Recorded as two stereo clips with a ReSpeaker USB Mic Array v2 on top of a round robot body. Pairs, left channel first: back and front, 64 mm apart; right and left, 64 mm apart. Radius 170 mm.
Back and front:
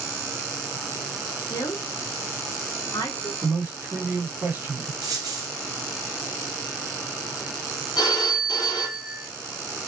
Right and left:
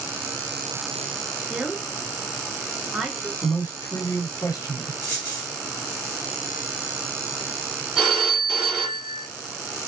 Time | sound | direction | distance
1.5 | a woman speaking | 175° left | 2.5 m
3.4 | a man speaking | 60° right | 2.5 m
5.0 | a dropped coin | 30° right | 1.7 m
8.0 | a phone ringing | 170° left | 1.3 m